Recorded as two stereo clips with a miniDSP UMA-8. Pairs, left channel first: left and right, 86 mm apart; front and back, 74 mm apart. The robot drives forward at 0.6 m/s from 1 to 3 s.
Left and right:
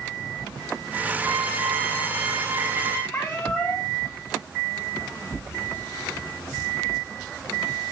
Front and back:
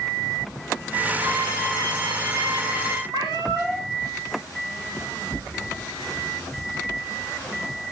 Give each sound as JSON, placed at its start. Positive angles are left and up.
{"t": 1.2, "sound": "a violin", "azimuth_deg": -160, "distance_m": 7.5}
{"t": 3.1, "sound": "a cat meowing", "azimuth_deg": 145, "distance_m": 5.5}